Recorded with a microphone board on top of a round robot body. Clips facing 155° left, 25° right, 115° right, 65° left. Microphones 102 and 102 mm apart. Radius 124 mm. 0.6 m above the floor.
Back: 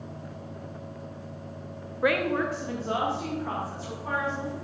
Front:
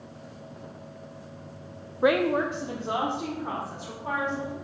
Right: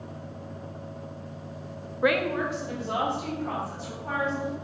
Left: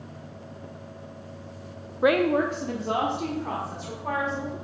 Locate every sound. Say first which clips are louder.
2.0 s a woman speaking: front 3 dB, left 4 dB; 20° left, 0.6 m; by 4.5 s 50° left, 3 m